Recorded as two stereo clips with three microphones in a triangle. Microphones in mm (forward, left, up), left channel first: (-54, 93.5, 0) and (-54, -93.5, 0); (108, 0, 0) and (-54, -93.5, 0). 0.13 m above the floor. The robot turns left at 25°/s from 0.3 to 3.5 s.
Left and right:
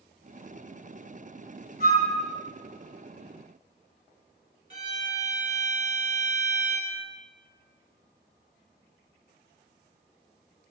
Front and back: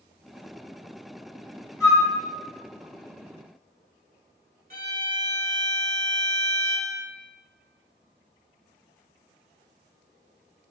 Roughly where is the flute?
Left.